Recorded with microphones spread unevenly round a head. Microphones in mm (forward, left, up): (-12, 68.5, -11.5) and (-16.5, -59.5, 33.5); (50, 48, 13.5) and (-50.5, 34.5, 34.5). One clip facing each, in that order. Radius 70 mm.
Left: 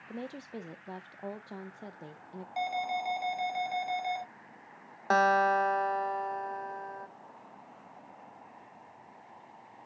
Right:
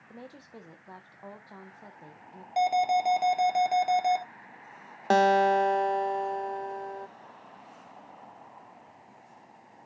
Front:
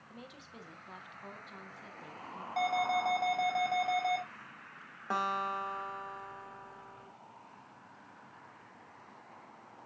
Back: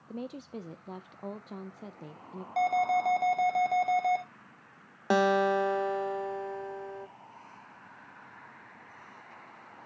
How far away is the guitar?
About 0.6 m.